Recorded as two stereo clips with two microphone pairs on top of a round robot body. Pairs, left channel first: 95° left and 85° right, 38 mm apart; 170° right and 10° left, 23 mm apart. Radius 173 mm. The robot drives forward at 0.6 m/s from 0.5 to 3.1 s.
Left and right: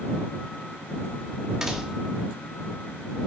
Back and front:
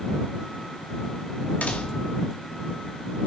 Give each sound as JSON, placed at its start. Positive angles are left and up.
{"t": 1.6, "sound": "a door slam", "azimuth_deg": -155, "distance_m": 0.9}